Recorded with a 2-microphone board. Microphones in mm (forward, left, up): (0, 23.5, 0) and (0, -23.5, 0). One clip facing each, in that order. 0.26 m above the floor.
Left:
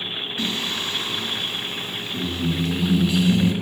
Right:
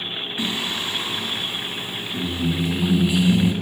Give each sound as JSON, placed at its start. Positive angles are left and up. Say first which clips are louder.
{"t": 0.4, "sound": "singing", "louder": "right 1 dB", "side_deg": -20, "distance_m": 1.1}